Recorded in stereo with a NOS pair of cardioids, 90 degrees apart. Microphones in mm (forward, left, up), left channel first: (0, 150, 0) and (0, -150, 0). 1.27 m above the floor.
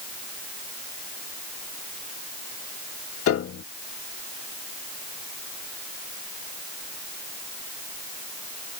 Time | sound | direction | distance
3.3 | a piano | 50° left | ?